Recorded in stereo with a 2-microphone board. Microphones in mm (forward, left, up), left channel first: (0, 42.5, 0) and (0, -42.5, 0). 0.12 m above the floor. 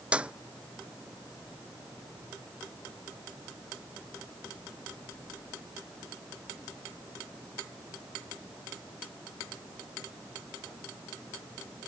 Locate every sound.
0.1 s a clap: 10° right (ahead or behind)